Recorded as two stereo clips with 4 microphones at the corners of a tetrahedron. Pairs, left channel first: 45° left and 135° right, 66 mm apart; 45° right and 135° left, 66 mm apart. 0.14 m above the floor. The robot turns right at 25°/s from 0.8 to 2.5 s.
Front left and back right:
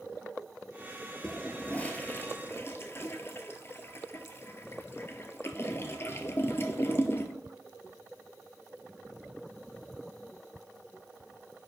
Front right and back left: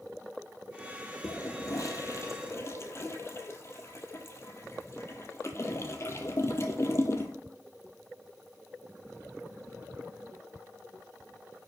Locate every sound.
1.2 s a toilet flushing: 35° right, 0.9 m; by 7.3 s straight ahead, 0.9 m